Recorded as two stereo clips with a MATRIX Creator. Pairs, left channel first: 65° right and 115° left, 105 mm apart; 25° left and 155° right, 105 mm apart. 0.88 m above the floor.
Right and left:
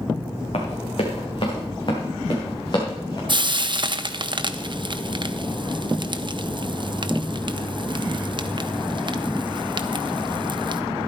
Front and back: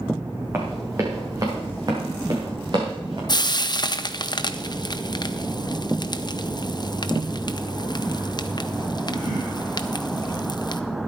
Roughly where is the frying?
Left.